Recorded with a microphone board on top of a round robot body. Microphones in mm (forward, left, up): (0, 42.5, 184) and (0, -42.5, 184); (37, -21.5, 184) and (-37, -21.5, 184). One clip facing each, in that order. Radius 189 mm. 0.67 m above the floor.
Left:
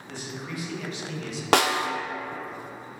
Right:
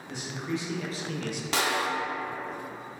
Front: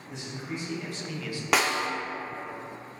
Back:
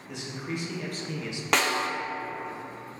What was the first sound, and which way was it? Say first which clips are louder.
A man speaking: right 3 dB, back 2 dB; 165° right.